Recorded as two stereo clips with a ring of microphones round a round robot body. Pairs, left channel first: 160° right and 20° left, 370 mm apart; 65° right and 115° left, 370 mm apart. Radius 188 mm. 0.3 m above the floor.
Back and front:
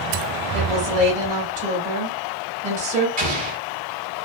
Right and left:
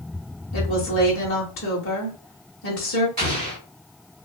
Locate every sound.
0.5 s a woman speaking: 35° right, 1.1 m
3.2 s an explosion: 70° left, 1.7 m